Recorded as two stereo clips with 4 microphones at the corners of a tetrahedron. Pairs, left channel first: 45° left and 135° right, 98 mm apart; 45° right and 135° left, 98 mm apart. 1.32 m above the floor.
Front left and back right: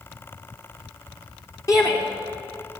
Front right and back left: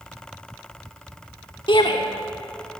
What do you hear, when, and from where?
1.7 s a shout: 10° right, 2.5 m